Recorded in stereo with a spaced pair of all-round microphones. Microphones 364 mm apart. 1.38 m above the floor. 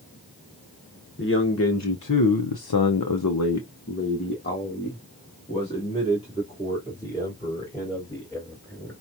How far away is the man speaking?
About 1.2 m.